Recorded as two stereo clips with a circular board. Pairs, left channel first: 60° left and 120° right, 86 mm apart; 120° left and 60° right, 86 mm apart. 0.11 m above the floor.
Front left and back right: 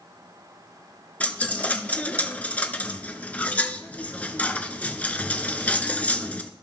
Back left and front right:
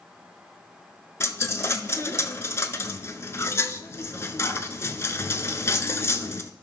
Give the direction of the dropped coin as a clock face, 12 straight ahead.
8 o'clock.